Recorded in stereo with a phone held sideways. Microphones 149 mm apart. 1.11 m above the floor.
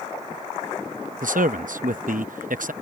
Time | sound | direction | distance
1.2 | a man speaking | 75° right (ahead or behind) | ?